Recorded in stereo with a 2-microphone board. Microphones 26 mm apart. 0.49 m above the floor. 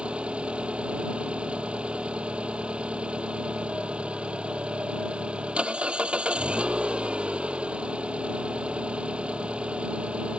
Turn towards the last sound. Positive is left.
turn(degrees=-50)  # may be behind; listen again after turning